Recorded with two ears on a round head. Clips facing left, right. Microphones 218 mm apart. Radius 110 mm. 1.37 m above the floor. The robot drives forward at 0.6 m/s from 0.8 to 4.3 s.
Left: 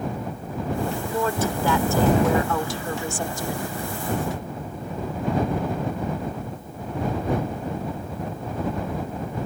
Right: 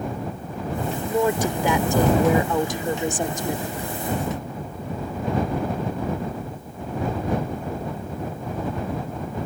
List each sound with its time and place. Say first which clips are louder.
1.1 s a woman speaking: right 6 dB; 15° right (ahead or behind); by 3.7 s 20° right (ahead or behind)